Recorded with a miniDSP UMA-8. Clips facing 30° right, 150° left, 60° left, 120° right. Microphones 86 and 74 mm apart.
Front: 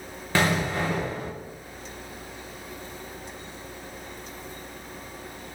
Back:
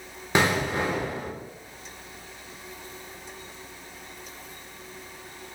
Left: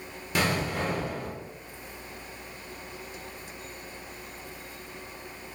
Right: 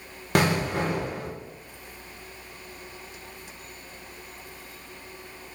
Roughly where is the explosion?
Behind right.